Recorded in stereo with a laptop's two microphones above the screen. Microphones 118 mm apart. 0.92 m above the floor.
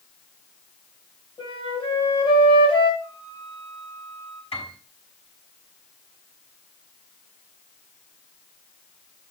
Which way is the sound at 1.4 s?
45° left (ahead or behind).